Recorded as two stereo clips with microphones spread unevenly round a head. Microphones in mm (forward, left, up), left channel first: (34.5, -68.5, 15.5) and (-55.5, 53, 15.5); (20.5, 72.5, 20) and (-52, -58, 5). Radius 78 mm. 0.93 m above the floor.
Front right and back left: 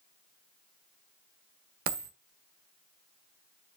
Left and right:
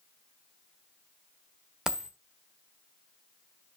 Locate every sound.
1.9 s a dropped coin: 155° left, 1.2 m